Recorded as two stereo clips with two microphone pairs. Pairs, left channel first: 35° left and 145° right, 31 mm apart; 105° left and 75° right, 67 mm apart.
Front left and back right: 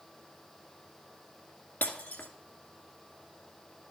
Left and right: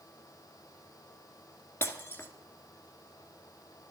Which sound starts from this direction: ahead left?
Breaking glass, at 1.8 s.